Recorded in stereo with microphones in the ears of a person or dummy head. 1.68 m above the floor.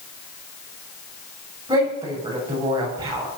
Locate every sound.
1.7 s a woman speaking: 15° right (ahead or behind), 7.5 m